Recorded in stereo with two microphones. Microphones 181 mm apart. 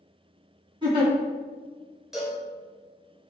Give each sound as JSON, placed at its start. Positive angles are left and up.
{"t": 0.8, "sound": "a giggle", "side_deg": -25, "distance_m": 1.9}
{"t": 2.1, "sound": "a cowbell", "side_deg": -5, "distance_m": 1.6}